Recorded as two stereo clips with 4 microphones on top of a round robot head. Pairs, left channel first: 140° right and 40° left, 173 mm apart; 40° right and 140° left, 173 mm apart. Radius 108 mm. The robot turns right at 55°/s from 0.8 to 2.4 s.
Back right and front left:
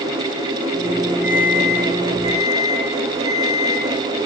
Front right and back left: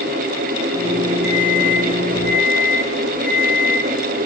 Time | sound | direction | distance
1.2 | an alarm clock | 85° left | 8 m